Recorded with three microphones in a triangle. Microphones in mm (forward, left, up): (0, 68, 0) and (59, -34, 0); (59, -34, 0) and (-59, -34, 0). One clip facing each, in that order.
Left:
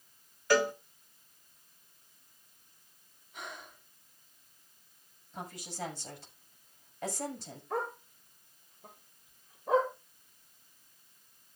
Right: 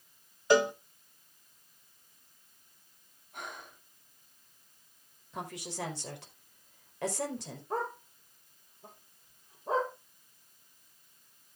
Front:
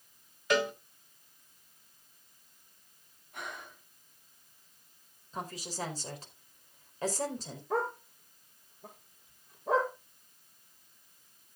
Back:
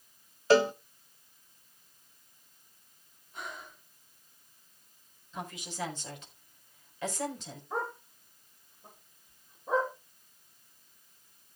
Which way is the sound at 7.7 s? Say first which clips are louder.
Even, front 4 dB; 5° right.